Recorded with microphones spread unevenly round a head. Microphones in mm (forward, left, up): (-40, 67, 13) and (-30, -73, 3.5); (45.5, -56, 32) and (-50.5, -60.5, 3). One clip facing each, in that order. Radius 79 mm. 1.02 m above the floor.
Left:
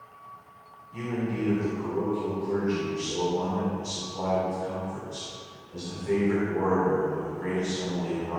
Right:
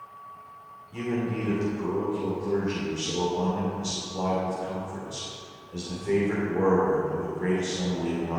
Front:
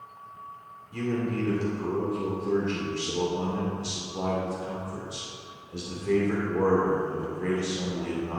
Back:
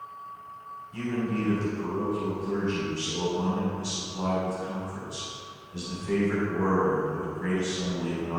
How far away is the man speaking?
About 2.5 m.